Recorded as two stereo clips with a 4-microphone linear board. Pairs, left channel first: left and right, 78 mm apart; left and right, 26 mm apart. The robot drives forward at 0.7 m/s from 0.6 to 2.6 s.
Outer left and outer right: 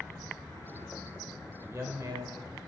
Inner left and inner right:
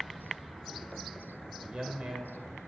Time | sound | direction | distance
1.6 | a man speaking | 40° right (ahead or behind) | 1.9 m